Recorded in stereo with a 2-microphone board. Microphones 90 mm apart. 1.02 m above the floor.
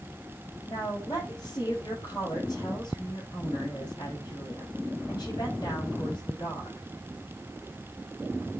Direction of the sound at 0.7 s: 45° left (ahead or behind).